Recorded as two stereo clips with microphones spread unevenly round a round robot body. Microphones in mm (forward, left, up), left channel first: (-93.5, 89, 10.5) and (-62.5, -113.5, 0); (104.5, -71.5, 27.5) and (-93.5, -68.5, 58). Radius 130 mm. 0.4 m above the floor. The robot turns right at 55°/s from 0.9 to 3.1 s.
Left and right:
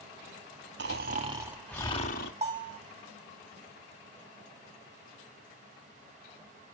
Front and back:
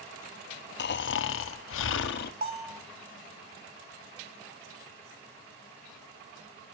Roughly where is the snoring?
Ahead right.